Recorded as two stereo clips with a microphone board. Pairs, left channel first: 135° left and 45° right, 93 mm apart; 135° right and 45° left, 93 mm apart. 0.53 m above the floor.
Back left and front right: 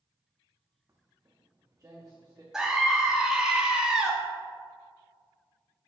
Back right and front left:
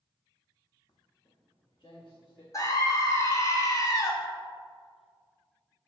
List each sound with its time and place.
0.9 s footsteps: 100° right, 1.4 m
2.5 s a scream: 125° right, 1.3 m